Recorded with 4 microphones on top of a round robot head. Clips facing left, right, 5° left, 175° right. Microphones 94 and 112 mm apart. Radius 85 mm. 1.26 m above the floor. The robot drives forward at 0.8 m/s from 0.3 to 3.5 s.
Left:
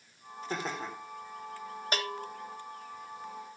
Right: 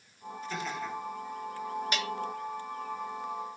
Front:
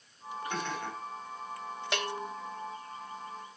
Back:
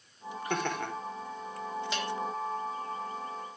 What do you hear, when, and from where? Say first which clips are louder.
0.5 s laughter: even, back 5 dB; 150° left, 5 m; by 0.9 s 155° left, 5 m
1.9 s a bell: right 2 dB, front 1 dB; 40° left, 1.4 m; by 2.3 s 45° left, 1.2 m